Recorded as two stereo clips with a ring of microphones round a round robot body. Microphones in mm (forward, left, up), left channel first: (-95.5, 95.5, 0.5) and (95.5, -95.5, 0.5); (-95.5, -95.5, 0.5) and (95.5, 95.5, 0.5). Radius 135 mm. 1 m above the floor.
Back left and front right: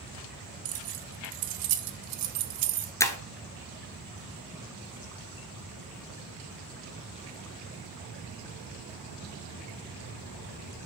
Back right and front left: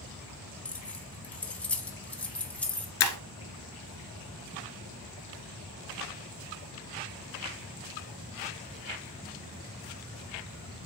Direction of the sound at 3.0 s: 145° right.